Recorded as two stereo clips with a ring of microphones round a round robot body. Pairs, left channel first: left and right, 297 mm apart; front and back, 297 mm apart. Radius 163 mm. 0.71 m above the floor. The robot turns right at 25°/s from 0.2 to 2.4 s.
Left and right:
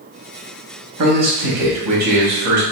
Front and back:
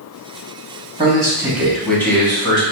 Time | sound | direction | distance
1.0 | a man speaking | 110° right | 1.6 m